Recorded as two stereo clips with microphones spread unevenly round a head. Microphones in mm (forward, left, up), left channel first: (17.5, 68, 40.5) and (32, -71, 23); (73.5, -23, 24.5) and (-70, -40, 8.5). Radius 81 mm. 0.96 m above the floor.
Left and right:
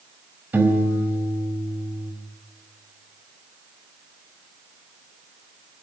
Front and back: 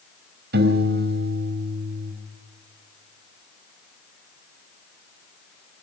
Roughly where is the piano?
Behind.